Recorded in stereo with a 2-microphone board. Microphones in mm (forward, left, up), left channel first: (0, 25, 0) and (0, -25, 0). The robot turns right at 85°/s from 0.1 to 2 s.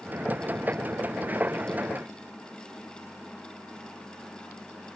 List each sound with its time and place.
Only background noise.